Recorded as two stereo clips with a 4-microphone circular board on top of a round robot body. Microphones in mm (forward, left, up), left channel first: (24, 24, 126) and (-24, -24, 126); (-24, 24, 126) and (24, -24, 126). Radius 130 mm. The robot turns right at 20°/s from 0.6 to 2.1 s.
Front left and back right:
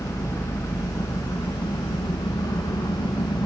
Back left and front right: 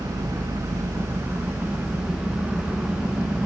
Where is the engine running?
Straight ahead, 1.0 m; by 3.5 s 30° left, 1.0 m.